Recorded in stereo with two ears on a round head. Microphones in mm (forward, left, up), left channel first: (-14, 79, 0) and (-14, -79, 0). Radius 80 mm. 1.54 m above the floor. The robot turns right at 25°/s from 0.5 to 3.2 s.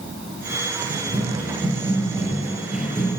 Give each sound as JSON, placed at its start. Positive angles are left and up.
{"t": 0.9, "sound": "running footsteps", "side_deg": -40, "distance_m": 1.9}